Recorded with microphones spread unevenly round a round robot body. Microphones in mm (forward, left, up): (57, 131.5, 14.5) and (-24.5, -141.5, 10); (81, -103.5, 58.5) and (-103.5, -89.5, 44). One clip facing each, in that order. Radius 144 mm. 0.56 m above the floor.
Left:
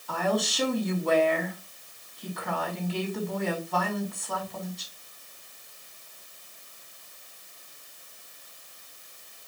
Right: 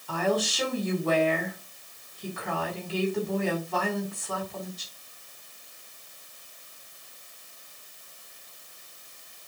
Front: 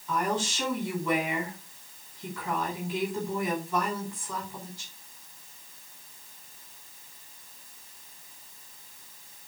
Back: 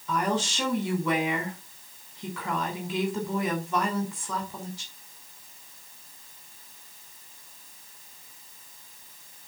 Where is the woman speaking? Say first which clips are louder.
Right 1 dB, back 2 dB; 165° left, 5.5 m.